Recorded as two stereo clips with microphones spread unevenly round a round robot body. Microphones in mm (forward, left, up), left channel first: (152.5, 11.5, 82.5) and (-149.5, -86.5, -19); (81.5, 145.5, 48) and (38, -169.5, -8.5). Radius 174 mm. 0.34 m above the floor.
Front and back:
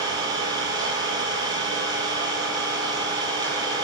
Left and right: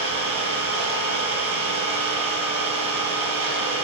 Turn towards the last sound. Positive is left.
turn(degrees=-85)